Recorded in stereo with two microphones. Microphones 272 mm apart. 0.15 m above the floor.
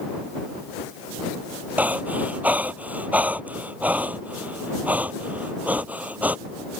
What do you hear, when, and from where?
1.8 s breathing: 5° right (ahead or behind)